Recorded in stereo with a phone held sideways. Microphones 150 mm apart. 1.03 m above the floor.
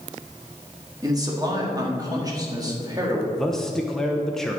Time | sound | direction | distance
1.0 | a man speaking | 25° right (ahead or behind) | 1.6 m
3.4 | a man speaking | 5° left (ahead or behind) | 0.7 m